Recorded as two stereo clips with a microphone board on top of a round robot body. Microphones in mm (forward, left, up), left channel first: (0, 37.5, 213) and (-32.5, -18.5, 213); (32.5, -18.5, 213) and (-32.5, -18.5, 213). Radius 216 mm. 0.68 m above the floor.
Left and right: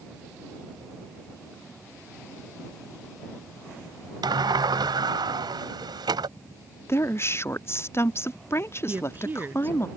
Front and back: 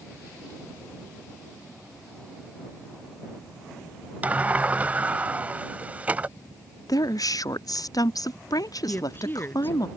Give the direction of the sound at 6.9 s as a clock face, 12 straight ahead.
12 o'clock.